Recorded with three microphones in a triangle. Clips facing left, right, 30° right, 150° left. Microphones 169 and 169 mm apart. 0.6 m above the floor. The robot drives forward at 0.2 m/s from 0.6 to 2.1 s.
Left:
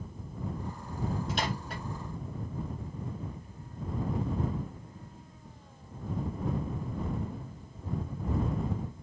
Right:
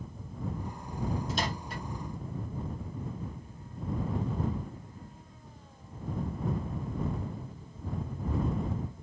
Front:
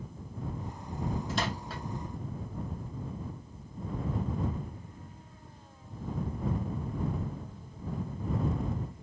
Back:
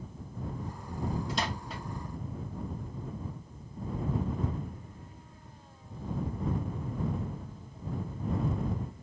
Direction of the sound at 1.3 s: 75° left.